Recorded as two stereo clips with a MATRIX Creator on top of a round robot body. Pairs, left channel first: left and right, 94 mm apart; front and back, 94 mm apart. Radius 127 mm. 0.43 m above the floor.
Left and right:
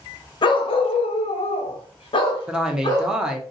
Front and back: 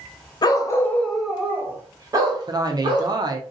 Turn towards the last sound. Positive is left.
turn(degrees=-170)